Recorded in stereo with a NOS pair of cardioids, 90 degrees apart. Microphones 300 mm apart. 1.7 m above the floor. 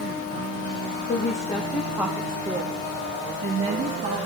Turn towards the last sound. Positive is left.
turn(degrees=-50)